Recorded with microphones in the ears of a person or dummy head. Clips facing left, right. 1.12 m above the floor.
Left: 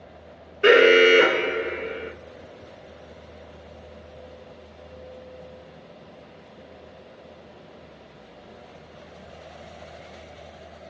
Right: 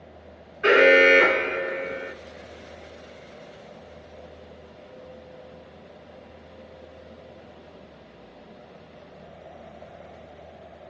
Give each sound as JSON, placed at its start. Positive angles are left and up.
{"t": 0.6, "sound": "an alarm", "side_deg": 45, "distance_m": 1.2}